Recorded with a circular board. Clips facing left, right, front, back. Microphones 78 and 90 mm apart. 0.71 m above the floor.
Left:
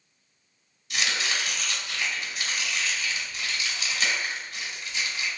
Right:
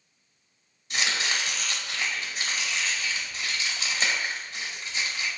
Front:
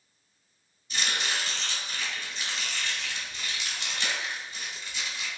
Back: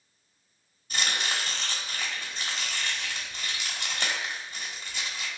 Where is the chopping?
145° right, 1.1 m.